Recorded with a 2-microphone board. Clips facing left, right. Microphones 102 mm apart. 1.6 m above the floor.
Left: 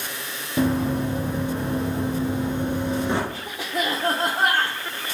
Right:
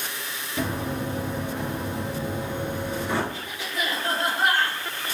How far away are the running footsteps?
About 2 m.